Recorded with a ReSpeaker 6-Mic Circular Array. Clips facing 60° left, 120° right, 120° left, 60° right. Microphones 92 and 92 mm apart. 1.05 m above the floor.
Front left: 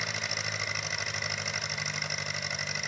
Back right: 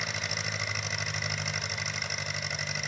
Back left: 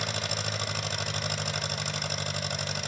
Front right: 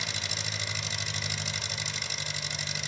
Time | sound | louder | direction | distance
0.0 | an engine running | even, back left 5 dB | 150° left | 1.8 m